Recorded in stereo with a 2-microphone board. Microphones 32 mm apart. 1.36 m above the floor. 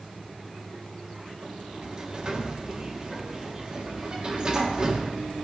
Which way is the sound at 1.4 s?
25° right (ahead or behind).